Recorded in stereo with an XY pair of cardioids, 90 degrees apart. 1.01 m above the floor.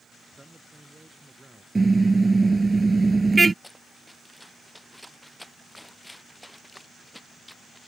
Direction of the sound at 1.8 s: 20° right.